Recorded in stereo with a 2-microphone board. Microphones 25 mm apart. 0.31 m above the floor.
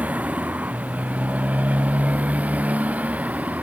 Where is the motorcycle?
80° right; by 3.6 s 85° right.